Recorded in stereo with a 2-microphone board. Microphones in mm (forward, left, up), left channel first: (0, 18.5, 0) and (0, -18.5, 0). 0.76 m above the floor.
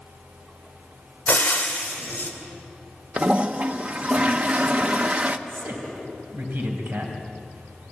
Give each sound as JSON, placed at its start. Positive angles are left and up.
{"t": 1.3, "sound": "frying", "side_deg": 50, "distance_m": 2.5}
{"t": 3.2, "sound": "a toilet flushing", "side_deg": -35, "distance_m": 0.8}
{"t": 5.5, "sound": "a man speaking", "side_deg": -85, "distance_m": 3.5}